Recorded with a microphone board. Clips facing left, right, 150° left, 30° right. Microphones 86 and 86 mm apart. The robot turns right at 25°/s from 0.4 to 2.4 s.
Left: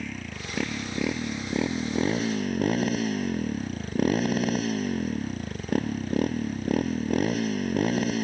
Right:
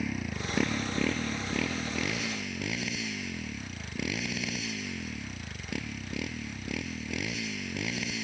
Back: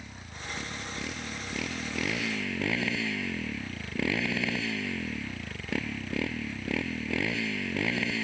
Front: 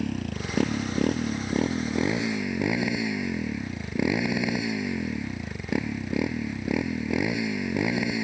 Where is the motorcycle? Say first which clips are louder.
Right 2 dB, front 14 dB; 5° right; by 8.2 s 45° left.